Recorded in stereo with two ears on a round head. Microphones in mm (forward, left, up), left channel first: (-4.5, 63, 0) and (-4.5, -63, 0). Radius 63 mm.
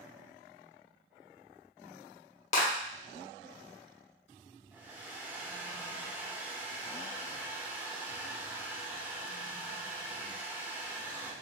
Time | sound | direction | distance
2.5 | a clap | 50° left (ahead or behind) | 1.3 m
4.7 | a hair dryer | 15° right (ahead or behind) | 0.7 m